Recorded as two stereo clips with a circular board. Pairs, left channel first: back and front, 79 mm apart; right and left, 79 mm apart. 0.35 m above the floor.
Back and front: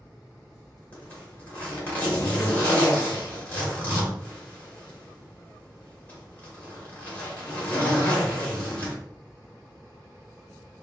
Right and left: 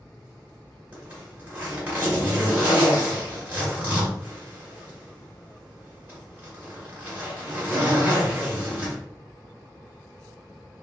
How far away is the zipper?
About 1.5 m.